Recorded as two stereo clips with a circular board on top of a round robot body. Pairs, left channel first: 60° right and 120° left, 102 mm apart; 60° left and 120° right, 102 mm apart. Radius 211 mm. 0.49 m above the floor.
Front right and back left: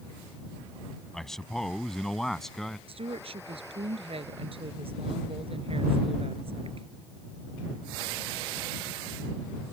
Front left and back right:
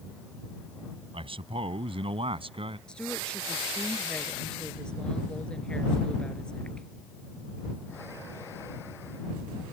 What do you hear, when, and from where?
1.1 s a man speaking: 145° right; by 2.8 s 150° right
2.9 s a woman speaking: 140° left